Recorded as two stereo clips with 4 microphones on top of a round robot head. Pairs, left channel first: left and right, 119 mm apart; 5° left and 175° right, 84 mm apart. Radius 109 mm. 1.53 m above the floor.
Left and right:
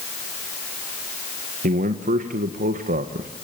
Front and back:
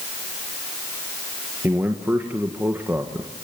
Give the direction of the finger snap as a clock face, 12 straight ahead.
I don't hear a finger snap.